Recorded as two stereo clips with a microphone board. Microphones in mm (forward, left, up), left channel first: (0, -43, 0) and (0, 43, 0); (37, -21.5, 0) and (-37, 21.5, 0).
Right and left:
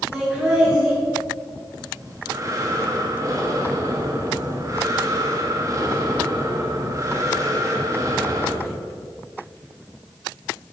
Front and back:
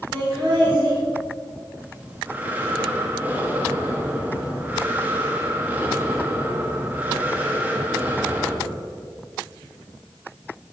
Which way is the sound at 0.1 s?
170° left.